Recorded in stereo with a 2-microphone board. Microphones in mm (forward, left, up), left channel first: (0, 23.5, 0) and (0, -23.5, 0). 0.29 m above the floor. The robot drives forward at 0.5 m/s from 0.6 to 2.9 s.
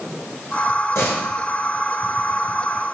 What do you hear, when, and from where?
0.9 s a door slam: 75° left (ahead or behind), 3.5 m; by 1.3 s 70° left (ahead or behind), 3.5 m